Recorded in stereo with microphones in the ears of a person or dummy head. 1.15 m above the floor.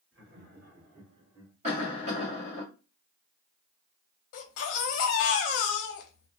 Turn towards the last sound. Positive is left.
turn(degrees=60)  # may be behind; listen again after turning